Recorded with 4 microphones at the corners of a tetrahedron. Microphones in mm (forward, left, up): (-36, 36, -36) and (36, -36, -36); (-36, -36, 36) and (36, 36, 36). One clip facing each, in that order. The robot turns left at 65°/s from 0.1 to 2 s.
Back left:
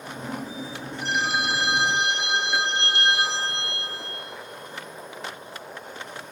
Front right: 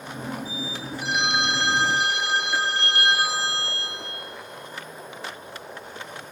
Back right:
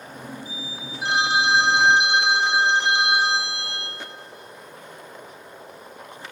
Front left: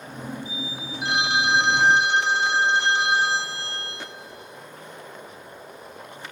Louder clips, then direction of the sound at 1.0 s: Even, back right 2 dB; 130° right.